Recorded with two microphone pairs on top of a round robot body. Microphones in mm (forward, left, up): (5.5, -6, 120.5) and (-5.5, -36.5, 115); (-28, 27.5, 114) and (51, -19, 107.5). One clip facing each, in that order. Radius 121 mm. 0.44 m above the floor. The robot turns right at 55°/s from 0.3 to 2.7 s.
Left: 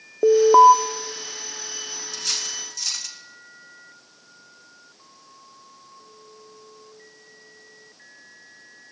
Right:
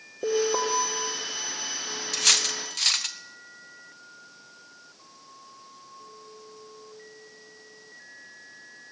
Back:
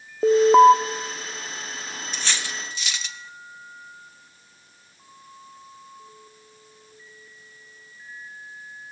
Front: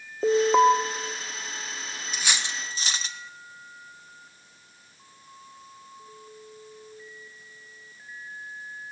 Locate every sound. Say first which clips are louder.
0.2 s an alarm: left 14 dB, back 6 dB; 70° left, 1.6 m; by 0.7 s 90° left, 1.6 m
2.1 s cutlery clinking: right 7 dB, even; 115° right, 1.5 m; by 3.2 s 85° right, 1.5 m